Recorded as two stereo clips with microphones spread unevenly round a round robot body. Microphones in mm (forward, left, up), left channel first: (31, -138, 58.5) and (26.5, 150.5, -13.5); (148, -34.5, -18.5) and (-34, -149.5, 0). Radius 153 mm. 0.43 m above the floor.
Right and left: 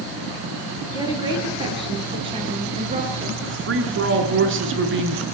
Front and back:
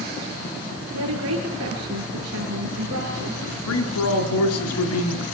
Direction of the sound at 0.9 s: 170° left.